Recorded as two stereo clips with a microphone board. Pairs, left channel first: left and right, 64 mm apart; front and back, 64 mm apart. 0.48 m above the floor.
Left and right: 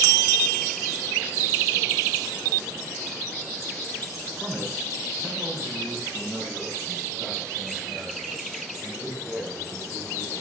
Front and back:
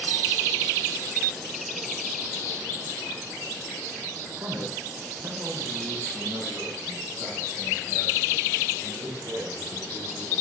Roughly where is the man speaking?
Behind.